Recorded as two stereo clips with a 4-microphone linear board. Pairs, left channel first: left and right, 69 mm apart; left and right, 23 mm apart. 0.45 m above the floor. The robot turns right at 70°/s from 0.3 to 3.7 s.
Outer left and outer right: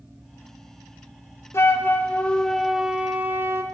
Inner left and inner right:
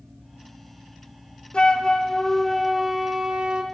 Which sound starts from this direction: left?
A flute, at 1.5 s.